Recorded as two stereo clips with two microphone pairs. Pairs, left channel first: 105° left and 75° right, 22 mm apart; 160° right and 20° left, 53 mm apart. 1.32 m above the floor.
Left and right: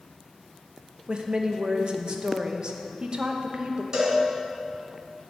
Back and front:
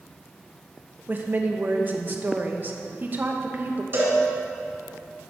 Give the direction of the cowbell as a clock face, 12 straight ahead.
1 o'clock.